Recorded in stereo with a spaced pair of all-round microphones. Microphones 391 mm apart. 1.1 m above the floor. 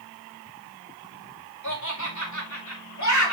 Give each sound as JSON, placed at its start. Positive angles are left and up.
{"t": 1.6, "sound": "laughter", "side_deg": 45, "distance_m": 5.0}